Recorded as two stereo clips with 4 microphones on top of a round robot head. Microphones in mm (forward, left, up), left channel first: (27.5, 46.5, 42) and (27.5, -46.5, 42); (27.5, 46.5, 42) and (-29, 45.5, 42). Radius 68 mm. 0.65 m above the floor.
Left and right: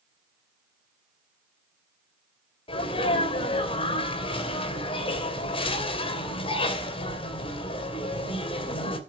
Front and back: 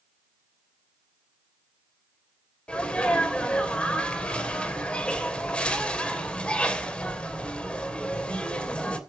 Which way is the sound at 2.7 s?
70° left.